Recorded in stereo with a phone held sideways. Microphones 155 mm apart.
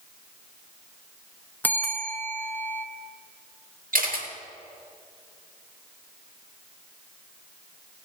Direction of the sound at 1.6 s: 10° left (ahead or behind).